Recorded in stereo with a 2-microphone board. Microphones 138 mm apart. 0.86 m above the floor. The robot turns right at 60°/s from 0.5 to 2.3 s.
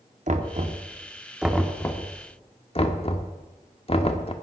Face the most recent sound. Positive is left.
turn(degrees=45)  # may be behind; listen again after turning